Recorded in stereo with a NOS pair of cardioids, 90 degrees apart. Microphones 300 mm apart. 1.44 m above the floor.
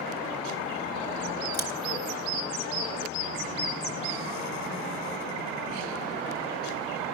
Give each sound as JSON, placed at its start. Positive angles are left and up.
{"t": 1.5, "sound": "scissors", "azimuth_deg": -30, "distance_m": 3.0}